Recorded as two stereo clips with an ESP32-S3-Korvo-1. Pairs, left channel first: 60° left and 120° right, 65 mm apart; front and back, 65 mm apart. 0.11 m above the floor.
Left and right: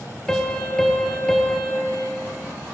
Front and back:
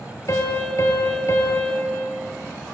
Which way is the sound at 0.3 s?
15° right.